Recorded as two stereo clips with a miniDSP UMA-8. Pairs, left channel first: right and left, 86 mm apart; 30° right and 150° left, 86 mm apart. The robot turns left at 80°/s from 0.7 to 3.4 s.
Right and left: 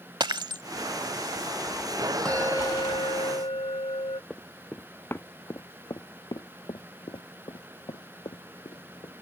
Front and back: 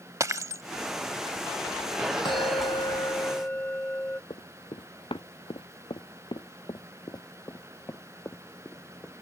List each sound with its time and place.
0.2 s breaking glass: 105° left
2.2 s a bell: 10° right; by 4.2 s 100° right
4.3 s running footsteps: 10° right; by 9.1 s 95° right